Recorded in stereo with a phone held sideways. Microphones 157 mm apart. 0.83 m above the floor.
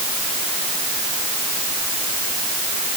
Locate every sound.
Only background noise.